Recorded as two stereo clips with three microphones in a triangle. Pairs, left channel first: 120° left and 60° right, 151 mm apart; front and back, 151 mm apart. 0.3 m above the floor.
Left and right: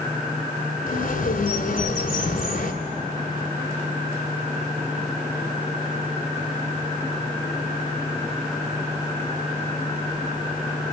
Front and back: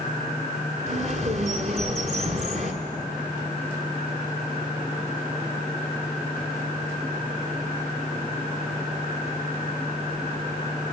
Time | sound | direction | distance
0.9 | a bird | 140° left | 1.1 m